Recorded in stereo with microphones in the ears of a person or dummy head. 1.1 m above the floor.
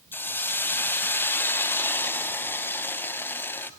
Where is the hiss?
5° left (ahead or behind), 0.7 m.